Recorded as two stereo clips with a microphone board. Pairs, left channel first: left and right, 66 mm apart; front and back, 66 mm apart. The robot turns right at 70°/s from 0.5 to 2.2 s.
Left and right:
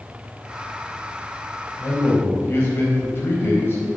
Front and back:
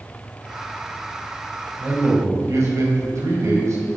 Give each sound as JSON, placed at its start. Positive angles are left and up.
{"t": 1.8, "sound": "a man speaking", "azimuth_deg": 110, "distance_m": 4.0}